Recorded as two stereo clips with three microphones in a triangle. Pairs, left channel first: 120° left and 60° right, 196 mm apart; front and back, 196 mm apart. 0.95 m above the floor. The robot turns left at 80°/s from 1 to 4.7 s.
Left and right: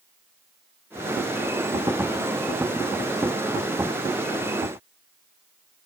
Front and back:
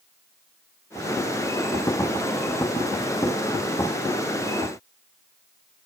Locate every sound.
Only background noise.